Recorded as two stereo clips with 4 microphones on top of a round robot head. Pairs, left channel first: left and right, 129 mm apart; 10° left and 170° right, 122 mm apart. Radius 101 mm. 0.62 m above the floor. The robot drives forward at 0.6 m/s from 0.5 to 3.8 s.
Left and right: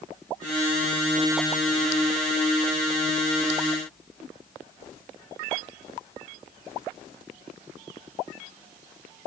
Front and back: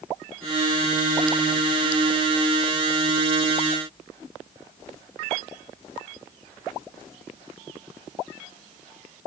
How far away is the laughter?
No laughter in this recording.